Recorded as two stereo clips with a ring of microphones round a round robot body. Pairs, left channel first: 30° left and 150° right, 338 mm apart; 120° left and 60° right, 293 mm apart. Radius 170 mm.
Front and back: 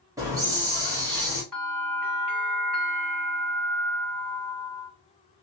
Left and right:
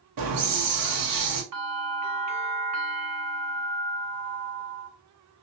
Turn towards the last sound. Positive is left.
turn(degrees=-60)